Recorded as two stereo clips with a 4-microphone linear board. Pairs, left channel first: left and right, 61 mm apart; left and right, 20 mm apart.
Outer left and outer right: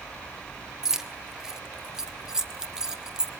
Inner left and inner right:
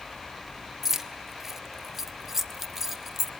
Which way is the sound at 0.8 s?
10° right (ahead or behind).